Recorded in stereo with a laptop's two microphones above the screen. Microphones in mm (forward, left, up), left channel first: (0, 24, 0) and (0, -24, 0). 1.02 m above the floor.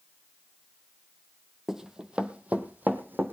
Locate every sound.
1.7 s running footsteps: 10° right (ahead or behind), 1.3 m; by 3.3 s 45° right (ahead or behind), 1.9 m